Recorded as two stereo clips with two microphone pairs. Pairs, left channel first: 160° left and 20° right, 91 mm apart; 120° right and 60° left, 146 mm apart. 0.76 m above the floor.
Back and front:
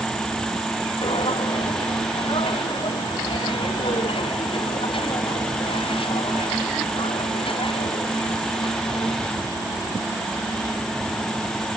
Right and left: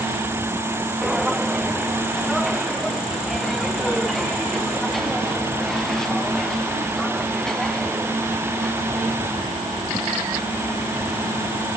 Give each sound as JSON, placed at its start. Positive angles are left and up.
{"t": 1.0, "sound": "footsteps", "azimuth_deg": 145}